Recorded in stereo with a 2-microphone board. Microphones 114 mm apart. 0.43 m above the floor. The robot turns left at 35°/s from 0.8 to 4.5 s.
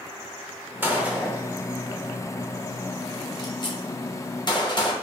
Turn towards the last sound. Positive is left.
turn(degrees=40)  # may be behind; listen again after turning